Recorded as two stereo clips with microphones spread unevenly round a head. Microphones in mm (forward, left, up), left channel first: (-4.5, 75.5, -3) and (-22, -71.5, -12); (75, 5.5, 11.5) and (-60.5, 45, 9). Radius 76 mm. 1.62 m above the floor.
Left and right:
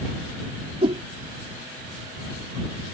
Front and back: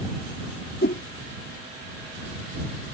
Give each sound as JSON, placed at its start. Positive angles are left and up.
{"t": 0.8, "sound": "a whoosh", "azimuth_deg": -40}